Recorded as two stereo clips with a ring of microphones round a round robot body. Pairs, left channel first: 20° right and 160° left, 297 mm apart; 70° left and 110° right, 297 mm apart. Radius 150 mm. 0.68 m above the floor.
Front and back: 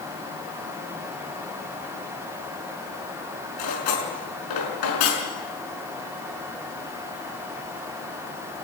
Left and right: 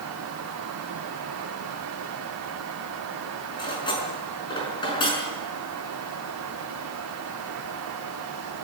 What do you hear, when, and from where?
3.6 s cutlery clinking: 10° right, 5.5 m